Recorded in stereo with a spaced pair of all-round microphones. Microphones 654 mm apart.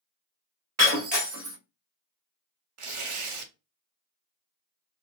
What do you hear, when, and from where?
0.8 s breaking glass: 25° right (ahead or behind), 1.2 m
2.8 s tearing paper: 50° right (ahead or behind), 0.6 m